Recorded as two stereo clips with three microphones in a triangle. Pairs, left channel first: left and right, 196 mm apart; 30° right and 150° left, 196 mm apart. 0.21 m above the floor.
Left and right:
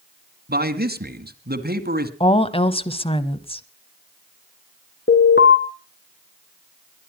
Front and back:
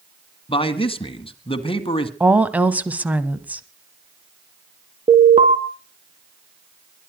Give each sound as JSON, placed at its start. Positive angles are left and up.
{"t": 0.5, "sound": "a man speaking", "azimuth_deg": -85, "distance_m": 1.8}
{"t": 2.2, "sound": "a woman speaking", "azimuth_deg": 75, "distance_m": 1.1}
{"t": 5.1, "sound": "an alarm", "azimuth_deg": 95, "distance_m": 2.5}